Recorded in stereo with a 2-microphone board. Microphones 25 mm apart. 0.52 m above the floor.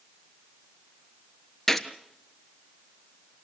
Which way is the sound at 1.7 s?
10° left (ahead or behind).